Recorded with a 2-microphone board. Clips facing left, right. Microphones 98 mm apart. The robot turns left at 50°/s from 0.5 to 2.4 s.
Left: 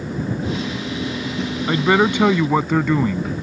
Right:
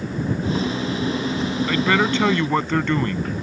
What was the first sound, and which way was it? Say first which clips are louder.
A man speaking: left 4 dB; 55° left.